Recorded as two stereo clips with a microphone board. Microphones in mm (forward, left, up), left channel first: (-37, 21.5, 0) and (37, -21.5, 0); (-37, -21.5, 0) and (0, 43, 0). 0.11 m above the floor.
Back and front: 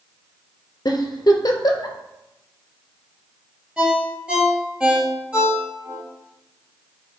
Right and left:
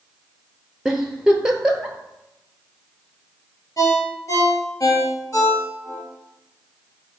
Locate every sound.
0.8 s a giggle: 140° left, 0.6 m
3.8 s a ringtone: 105° right, 1.5 m